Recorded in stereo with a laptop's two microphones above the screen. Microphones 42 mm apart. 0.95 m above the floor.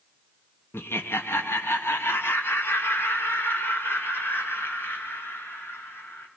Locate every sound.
0.7 s laughter: 70° left (ahead or behind), 0.8 m